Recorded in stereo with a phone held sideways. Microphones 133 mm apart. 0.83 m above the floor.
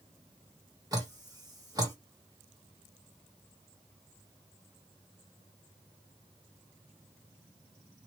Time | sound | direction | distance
0.9 | dripping | 30° right (ahead or behind) | 1.6 m